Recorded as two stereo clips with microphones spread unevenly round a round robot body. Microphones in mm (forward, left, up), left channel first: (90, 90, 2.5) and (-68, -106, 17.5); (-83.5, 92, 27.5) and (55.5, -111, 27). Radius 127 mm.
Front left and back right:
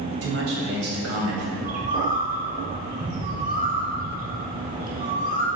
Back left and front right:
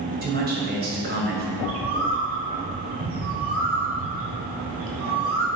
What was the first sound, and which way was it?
A man speaking, 105° right.